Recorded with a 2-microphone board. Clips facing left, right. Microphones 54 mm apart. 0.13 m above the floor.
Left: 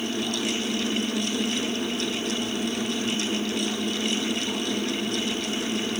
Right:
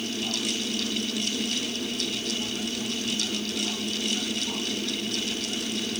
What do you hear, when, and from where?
Only background noise.